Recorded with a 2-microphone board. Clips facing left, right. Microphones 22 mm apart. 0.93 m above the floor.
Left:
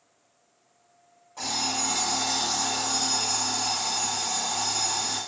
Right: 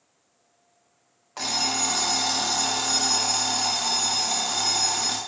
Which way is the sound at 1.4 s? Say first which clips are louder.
Right 3 dB; 60° right (ahead or behind).